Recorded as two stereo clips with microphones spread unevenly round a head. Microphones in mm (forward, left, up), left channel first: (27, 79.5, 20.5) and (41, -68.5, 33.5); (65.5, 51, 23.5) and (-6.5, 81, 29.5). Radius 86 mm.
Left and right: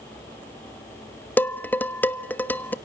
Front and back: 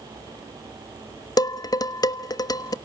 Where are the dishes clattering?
15° left, 1.1 m.